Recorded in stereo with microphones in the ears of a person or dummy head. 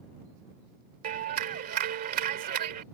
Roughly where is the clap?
Right.